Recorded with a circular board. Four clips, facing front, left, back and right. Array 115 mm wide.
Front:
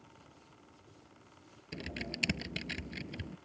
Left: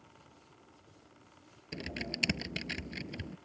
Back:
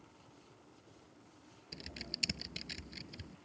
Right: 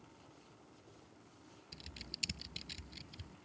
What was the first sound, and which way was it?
Typing on a keyboard, 65° left.